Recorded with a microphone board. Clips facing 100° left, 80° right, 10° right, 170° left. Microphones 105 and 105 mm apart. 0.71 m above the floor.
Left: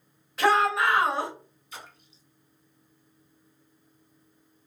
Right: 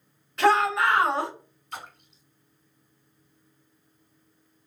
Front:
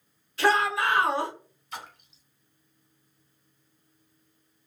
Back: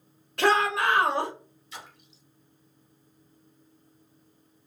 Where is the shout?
170° right, 1.3 m.